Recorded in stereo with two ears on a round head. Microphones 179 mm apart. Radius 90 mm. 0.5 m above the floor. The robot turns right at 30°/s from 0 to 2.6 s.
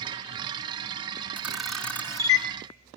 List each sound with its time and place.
1.4 s a camera shutter: 10° right (ahead or behind), 1.2 m; by 2.5 s 25° left (ahead or behind), 1.2 m